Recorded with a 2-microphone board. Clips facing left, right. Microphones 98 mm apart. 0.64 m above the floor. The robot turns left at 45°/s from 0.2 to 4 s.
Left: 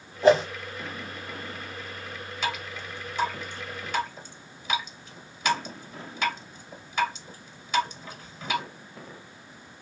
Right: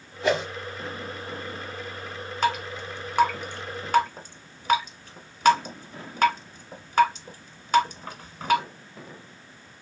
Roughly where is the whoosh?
Left.